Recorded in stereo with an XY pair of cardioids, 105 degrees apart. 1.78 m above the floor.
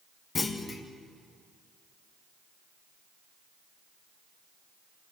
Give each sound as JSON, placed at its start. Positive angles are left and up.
{"t": 0.3, "sound": "a clunk", "azimuth_deg": 35, "distance_m": 2.0}